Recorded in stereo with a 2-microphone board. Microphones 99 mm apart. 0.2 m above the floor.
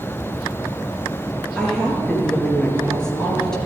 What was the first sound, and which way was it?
A woman speaking, 5° left (ahead or behind).